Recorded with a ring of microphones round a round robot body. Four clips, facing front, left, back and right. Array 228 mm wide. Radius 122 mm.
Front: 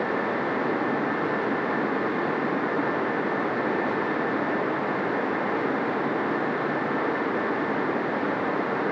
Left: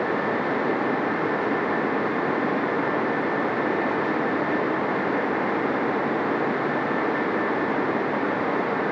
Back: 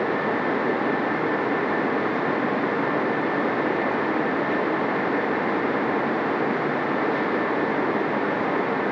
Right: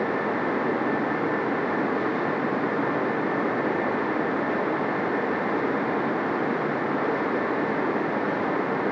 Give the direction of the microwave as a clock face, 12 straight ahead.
No microwave in this recording.